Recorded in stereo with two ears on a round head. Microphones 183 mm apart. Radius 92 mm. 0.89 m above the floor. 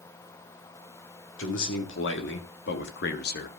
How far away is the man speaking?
About 2.5 m.